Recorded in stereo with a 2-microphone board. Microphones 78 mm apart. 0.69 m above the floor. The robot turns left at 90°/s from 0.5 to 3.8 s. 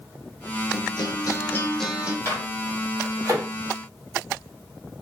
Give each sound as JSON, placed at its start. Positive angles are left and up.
{"t": 0.7, "sound": "a guitar", "azimuth_deg": 105, "distance_m": 0.6}
{"t": 2.2, "sound": "a microwave", "side_deg": 35, "distance_m": 1.7}